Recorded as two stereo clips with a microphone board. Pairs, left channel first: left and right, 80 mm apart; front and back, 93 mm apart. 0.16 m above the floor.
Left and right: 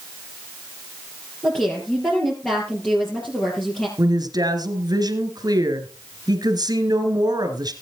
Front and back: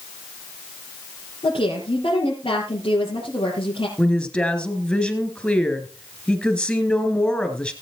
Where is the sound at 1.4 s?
15° left, 4.5 m.